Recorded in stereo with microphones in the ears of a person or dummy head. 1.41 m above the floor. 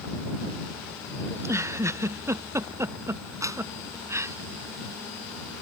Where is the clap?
10° right (ahead or behind).